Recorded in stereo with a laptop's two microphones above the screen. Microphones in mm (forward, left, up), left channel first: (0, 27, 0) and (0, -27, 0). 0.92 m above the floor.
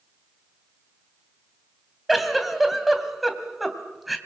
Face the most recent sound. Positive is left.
turn(degrees=0)  # may be behind; listen again after turning